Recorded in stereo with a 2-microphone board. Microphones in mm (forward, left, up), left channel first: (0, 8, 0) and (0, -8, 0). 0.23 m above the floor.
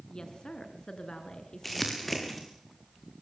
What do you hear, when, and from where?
0.1 s a woman speaking: 55° left (ahead or behind), 2.5 m
1.6 s crumpling: 10° left (ahead or behind), 5 m